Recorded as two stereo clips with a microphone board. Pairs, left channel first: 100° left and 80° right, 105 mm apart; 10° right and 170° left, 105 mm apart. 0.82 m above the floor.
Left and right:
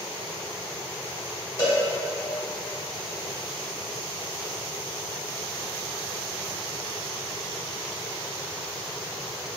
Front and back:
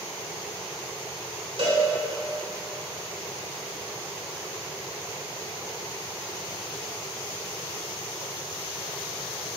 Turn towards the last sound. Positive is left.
turn(degrees=150)